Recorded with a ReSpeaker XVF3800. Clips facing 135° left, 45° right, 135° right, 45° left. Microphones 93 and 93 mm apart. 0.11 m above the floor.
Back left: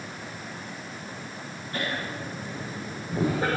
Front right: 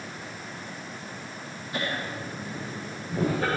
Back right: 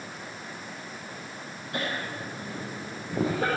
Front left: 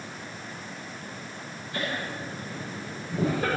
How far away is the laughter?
About 4 m.